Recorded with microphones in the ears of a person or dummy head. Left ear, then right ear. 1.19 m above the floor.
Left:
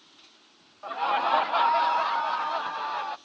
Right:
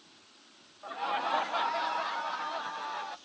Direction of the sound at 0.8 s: 35° left (ahead or behind).